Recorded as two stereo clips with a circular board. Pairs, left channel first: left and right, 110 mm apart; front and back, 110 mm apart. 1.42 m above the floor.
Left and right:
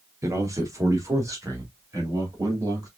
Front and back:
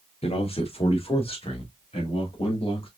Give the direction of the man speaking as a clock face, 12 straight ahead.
1 o'clock.